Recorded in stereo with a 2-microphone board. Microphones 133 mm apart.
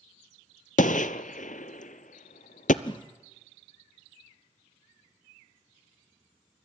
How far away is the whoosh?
About 1.7 m.